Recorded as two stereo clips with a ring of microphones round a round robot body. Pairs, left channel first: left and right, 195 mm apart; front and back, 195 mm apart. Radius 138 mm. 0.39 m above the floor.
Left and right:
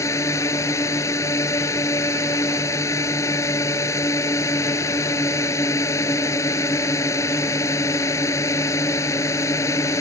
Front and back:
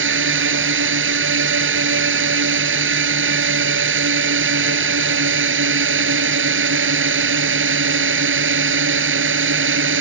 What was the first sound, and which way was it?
A drone, 170° left.